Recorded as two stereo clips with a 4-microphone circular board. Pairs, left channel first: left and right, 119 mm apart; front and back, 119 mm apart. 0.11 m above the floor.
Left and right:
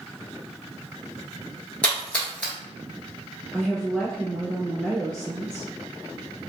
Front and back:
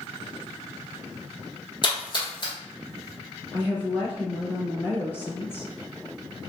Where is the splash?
15° left, 1.1 m.